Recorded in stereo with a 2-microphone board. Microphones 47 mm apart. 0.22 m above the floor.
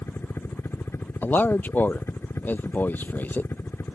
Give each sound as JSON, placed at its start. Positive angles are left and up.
{"t": 0.0, "sound": "a helicopter", "side_deg": 55}
{"t": 1.2, "sound": "a man speaking", "side_deg": 40}